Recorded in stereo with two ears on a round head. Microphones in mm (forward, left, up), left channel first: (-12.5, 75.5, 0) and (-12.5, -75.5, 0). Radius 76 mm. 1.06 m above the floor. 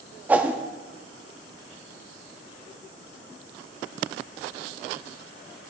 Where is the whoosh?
10° right (ahead or behind), 0.5 m.